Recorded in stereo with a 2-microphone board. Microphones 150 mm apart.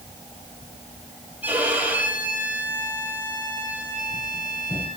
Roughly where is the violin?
Centre.